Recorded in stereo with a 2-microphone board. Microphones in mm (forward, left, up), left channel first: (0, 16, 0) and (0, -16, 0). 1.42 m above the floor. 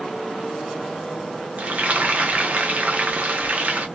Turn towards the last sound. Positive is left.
turn(degrees=-50)  # may be behind; listen again after turning